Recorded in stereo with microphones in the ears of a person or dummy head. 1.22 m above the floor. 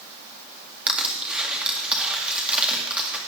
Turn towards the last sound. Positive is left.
turn(degrees=-5)  # may be behind; listen again after turning